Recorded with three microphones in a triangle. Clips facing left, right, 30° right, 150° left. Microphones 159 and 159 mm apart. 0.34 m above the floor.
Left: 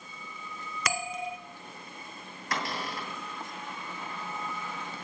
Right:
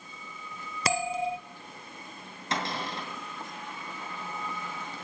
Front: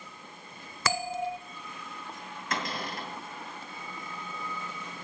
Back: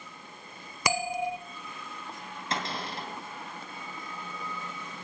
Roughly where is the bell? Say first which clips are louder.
Right 6 dB, back 1 dB; behind right.